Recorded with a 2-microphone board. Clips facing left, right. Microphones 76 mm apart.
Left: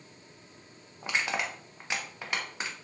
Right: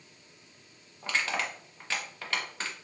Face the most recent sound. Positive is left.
turn(degrees=15)  # may be behind; listen again after turning